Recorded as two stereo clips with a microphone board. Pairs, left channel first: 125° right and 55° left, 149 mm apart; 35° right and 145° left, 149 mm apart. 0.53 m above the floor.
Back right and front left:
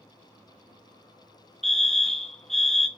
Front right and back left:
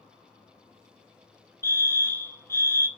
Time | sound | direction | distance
1.6 | a fire alarm | 40° right | 1.6 m